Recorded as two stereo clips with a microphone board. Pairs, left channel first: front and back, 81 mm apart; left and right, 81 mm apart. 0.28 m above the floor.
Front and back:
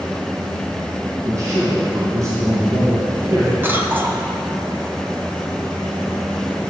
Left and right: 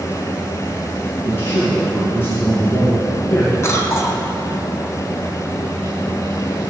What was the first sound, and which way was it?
A man speaking, 145° left.